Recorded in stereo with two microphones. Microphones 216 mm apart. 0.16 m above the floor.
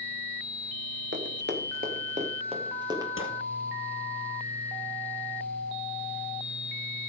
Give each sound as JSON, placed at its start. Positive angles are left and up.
{"t": 1.1, "sound": "running footsteps", "side_deg": -65, "distance_m": 2.5}
{"t": 3.2, "sound": "a gunshot", "side_deg": 70, "distance_m": 3.5}